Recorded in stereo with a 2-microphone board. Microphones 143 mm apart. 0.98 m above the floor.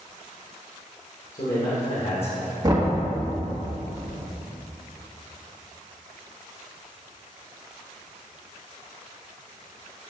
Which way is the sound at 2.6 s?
30° right (ahead or behind).